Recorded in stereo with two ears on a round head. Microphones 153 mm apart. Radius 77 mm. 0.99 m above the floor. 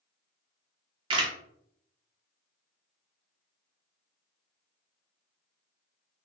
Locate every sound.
1.1 s a camera shutter: 30° right (ahead or behind), 0.5 m